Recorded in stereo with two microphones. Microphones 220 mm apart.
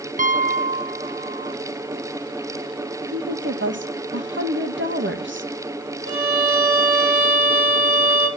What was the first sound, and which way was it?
A piano, 35° right (ahead or behind).